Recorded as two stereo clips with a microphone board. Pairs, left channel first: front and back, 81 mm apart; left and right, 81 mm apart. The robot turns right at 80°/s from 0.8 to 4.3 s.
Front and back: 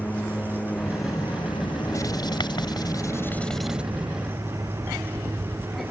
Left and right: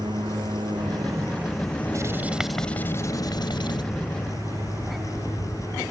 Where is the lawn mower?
70° right; by 5.9 s 140° right.